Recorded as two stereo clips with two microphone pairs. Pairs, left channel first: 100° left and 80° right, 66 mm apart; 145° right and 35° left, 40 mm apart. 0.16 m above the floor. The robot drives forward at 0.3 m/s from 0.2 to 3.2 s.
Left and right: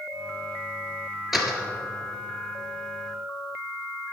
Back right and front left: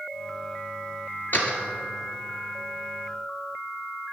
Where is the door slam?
170° right, 1.7 m.